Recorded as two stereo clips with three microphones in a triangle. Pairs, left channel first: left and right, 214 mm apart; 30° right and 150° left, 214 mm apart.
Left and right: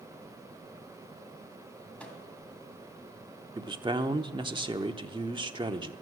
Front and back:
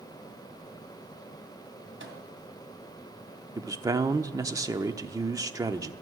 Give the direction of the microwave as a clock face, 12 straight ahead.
6 o'clock.